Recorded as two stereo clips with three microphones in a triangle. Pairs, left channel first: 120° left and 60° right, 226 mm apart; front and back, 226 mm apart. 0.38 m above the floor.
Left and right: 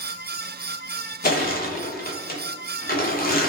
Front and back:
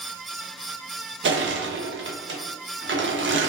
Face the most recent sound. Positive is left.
turn(degrees=165)